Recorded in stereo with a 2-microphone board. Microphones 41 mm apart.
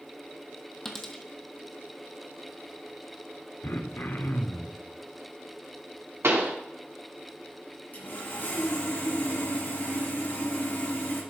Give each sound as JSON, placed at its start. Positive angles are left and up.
{"t": 0.8, "sound": "a dropped coin", "side_deg": 10, "distance_m": 1.2}
{"t": 3.6, "sound": "throat clearing", "side_deg": 65, "distance_m": 0.9}
{"t": 6.2, "sound": "a pop", "side_deg": -75, "distance_m": 1.8}
{"t": 7.9, "sound": "sawing", "side_deg": 50, "distance_m": 5.0}